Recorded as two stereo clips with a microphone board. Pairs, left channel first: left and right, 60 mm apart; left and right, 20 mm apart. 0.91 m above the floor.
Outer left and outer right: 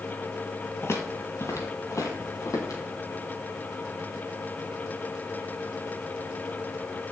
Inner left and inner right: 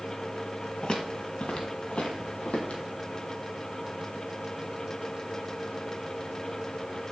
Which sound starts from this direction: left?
Footsteps, at 0.8 s.